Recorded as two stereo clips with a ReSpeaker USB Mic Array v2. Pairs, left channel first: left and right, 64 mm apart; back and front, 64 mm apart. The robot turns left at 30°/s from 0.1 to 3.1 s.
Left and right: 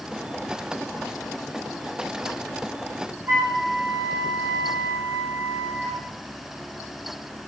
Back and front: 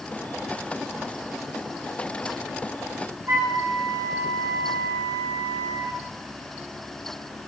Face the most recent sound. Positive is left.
turn(degrees=-45)